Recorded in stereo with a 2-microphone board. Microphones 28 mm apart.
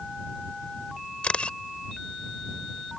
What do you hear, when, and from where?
1.2 s a camera shutter: 45° left (ahead or behind)